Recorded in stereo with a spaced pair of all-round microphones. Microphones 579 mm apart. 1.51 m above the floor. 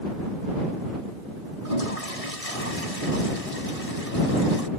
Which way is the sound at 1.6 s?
80° left.